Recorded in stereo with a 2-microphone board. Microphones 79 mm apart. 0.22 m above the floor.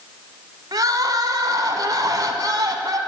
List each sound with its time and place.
0.7 s crying: 50° right (ahead or behind), 1.2 m